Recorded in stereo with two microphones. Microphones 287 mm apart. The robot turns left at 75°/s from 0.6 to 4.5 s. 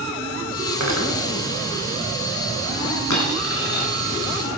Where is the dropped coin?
85° left, 4.5 m; by 3.9 s 25° left, 4.5 m.